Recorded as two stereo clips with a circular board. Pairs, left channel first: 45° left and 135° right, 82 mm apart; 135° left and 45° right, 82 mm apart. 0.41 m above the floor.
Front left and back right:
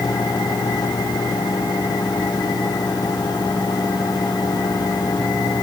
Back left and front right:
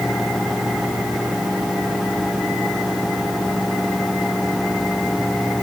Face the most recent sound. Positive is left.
No sound to turn to.